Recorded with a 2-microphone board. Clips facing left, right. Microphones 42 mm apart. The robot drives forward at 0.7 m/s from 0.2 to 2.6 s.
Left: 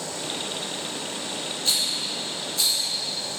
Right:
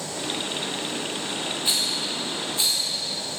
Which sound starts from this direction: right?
A rattle, at 1.6 s.